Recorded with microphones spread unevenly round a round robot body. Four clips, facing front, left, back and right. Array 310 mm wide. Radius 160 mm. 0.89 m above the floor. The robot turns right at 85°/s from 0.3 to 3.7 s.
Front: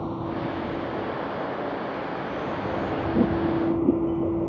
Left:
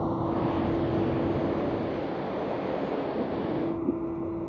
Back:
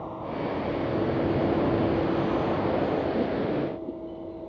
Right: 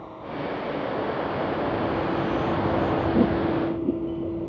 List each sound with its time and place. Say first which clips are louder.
0.0 s a vehicle: left 6 dB, front 3 dB; 60° left; by 4.5 s 10° right